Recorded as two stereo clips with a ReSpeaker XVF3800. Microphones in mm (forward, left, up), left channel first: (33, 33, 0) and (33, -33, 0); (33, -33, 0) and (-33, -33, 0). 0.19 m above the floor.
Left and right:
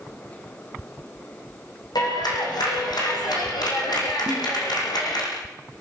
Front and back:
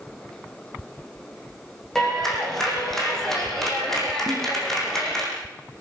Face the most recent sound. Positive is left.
turn(degrees=150)